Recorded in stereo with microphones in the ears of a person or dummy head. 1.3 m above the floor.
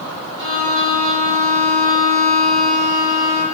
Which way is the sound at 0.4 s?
35° right (ahead or behind).